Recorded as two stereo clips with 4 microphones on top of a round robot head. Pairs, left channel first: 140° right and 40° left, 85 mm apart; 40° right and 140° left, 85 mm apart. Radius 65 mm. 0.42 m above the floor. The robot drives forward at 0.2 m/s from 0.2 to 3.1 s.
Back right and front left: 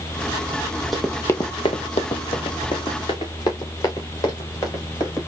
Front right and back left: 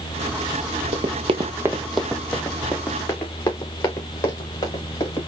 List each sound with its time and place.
0.9 s running footsteps: 135° left, 0.9 m; by 5.2 s 85° right, 4 m